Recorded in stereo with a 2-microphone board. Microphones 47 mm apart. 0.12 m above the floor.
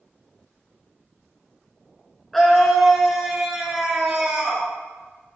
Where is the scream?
5° left (ahead or behind), 1.1 m; by 4.7 s 25° right (ahead or behind), 1.8 m.